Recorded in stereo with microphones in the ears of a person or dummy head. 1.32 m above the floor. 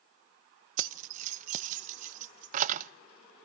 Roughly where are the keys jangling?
Right.